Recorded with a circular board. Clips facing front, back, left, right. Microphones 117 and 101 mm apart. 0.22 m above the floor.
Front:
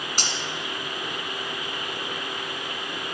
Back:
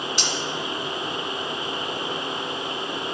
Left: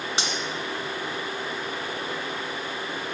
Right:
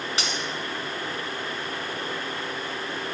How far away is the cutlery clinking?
About 1.4 m.